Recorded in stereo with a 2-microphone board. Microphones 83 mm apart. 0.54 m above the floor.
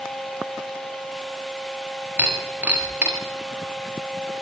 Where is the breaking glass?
20° right (ahead or behind), 9.5 m.